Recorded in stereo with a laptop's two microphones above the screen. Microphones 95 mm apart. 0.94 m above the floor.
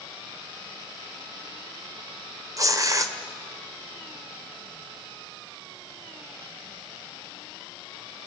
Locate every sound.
2.6 s tearing paper: 35° right (ahead or behind), 2.0 m